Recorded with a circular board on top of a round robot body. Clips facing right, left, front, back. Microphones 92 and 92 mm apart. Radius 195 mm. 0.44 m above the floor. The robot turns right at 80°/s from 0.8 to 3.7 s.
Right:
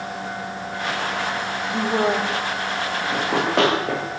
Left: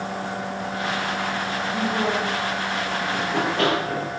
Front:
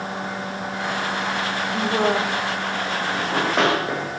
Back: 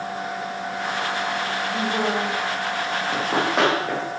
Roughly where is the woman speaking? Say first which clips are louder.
Right 4 dB, front 4 dB; right.